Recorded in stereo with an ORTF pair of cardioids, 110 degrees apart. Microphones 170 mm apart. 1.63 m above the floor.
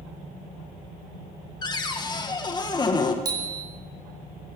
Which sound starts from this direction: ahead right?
A bicycle bell, at 3.2 s.